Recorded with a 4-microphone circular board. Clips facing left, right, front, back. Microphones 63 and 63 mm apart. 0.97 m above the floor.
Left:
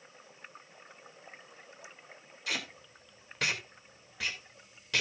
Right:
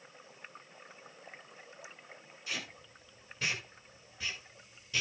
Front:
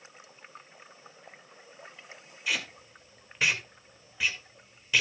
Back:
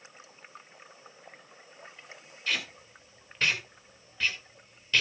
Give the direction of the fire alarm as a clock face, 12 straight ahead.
No fire alarm in this recording.